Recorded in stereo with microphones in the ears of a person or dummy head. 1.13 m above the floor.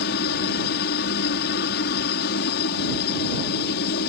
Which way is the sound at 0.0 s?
55° left (ahead or behind).